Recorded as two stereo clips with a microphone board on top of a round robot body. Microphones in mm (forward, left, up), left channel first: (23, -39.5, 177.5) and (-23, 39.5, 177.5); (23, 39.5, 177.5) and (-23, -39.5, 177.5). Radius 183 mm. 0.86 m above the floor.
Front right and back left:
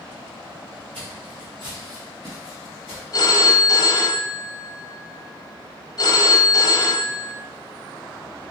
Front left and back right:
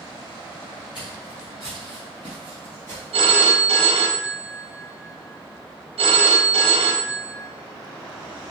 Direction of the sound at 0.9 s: 95° left.